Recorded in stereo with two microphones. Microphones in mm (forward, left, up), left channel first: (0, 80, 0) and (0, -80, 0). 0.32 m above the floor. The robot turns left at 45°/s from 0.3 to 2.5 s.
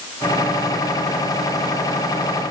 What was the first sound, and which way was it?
Only background noise.